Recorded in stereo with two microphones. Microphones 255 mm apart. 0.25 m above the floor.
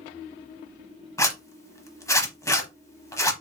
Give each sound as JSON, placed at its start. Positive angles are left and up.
{"t": 1.2, "sound": "a zipper", "side_deg": 10, "distance_m": 0.9}